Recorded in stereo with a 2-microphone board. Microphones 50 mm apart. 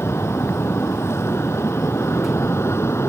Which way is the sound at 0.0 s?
65° left (ahead or behind).